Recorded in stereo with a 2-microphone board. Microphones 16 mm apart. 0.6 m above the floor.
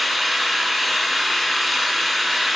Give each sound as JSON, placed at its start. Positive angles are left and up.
{"t": 0.0, "sound": "an engine running", "side_deg": -10, "distance_m": 4.5}